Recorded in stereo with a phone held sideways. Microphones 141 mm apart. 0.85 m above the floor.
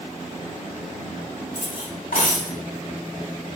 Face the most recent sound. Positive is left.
turn(degrees=75)  # may be behind; listen again after turning